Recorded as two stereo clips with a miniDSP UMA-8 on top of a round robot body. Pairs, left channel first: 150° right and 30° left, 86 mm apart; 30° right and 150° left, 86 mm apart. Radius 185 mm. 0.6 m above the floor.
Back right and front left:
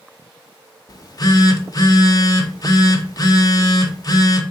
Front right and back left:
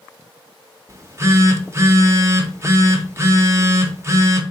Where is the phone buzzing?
165° right, 0.9 m.